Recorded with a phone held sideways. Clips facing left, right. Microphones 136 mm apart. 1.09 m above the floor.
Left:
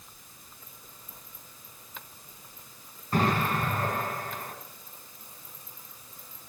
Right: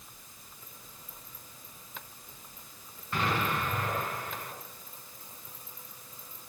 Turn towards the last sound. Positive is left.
turn(degrees=40)  # may be behind; listen again after turning